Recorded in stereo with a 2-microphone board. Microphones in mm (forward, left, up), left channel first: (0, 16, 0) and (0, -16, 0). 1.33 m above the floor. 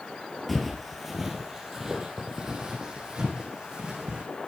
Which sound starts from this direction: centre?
Footsteps, at 0.5 s.